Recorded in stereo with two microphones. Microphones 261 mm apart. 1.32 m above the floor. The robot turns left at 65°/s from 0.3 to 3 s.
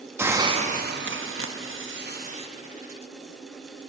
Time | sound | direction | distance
0.2 | a hiss | 10° right | 0.9 m